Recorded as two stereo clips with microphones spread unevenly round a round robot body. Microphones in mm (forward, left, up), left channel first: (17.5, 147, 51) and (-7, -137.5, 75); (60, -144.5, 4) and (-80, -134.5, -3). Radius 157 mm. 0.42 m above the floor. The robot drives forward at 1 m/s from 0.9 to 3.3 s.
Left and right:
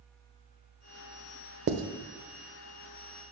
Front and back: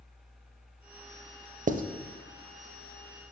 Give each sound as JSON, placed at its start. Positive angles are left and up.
{"t": 1.7, "sound": "writing", "azimuth_deg": -150, "distance_m": 0.6}